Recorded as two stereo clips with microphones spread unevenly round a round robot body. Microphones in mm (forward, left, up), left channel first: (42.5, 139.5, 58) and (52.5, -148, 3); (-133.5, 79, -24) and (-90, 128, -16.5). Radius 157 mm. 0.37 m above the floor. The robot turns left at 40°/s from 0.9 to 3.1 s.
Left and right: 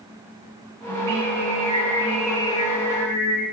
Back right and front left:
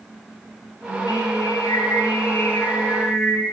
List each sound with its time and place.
0.9 s singing: 125° right, 5 m; by 3.4 s 150° left, 5 m